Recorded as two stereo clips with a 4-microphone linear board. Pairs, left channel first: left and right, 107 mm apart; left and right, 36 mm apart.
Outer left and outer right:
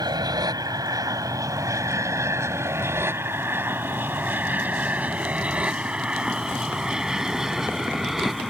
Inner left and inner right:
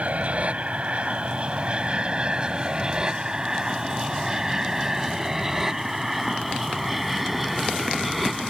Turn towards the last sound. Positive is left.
turn(degrees=0)  # may be behind; listen again after turning